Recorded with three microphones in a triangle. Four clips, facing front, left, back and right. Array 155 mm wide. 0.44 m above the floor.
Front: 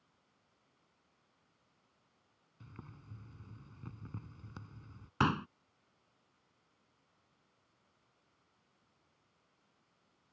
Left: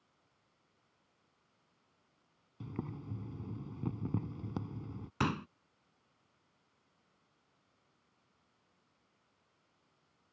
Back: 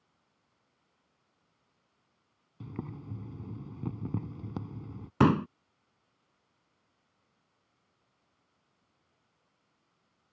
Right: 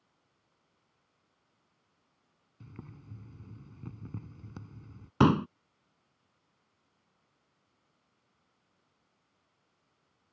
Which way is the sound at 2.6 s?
145° left.